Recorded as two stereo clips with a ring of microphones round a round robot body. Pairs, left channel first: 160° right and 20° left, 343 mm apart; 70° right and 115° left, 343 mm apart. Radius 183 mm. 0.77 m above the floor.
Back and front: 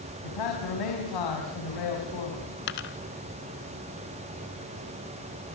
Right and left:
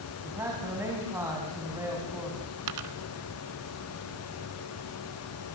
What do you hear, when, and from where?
0.2 s a man speaking: 165° right, 6 m
2.7 s a dropped coin: 145° left, 1.5 m